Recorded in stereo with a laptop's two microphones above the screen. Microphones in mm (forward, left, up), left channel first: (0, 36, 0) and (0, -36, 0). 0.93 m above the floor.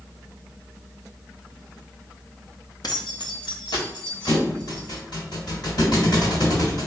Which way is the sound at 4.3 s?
70° left (ahead or behind).